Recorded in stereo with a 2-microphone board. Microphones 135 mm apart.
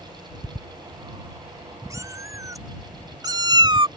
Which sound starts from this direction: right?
A cat meowing, at 1.9 s.